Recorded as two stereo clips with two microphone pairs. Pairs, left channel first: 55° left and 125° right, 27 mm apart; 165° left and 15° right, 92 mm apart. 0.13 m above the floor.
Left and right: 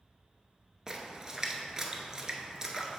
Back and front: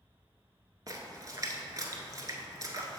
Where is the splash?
55° right, 0.7 m.